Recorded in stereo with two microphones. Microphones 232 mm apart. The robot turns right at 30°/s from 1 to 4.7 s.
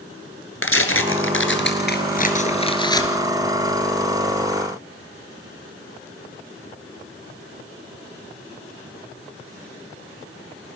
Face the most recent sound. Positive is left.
turn(degrees=-145)